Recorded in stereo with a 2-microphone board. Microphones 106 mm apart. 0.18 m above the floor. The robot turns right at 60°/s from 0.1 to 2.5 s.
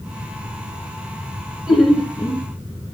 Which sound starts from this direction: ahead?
Laughter, at 1.7 s.